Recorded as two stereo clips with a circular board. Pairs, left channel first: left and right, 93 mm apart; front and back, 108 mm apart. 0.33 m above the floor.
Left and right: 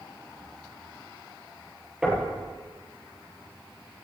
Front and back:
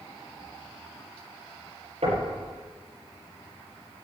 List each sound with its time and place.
2.0 s knocking: 170° right, 7 m